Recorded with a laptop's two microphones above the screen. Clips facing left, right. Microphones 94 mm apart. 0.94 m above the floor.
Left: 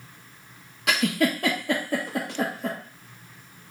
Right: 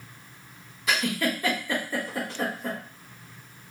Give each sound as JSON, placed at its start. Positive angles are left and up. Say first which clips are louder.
{"t": 0.9, "sound": "a giggle", "louder": "left 3 dB", "side_deg": 75, "distance_m": 1.0}